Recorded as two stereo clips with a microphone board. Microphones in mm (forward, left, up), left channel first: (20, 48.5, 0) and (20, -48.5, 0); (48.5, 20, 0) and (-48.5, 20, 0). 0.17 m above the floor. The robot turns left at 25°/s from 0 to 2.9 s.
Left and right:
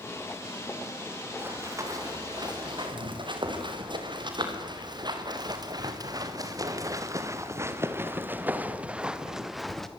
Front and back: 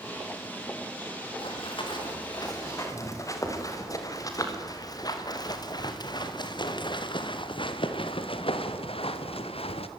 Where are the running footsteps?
25° right, 7 m; by 9.9 s 5° left, 2.5 m.